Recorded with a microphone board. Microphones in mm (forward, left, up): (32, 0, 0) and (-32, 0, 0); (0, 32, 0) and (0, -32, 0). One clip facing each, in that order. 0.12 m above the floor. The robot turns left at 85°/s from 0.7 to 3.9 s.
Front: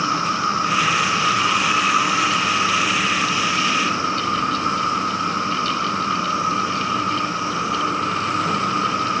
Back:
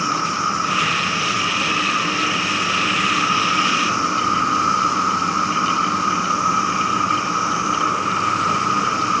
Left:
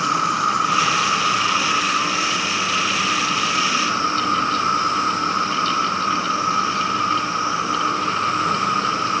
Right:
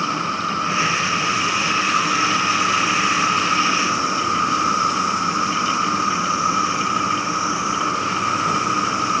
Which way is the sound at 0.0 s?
105° left.